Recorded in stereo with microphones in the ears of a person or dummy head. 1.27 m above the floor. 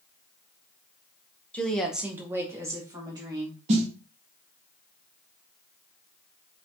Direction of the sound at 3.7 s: 40° right (ahead or behind).